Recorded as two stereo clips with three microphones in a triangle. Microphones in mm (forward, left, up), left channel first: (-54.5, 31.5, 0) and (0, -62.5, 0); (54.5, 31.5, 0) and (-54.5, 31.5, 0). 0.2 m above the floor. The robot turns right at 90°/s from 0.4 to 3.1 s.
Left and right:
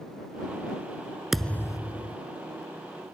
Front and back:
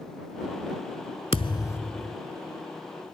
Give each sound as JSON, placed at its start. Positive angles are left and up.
{"t": 1.3, "sound": "a thud", "azimuth_deg": 25}